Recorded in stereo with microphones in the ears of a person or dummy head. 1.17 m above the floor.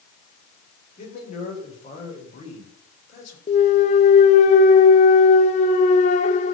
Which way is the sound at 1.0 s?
50° left (ahead or behind).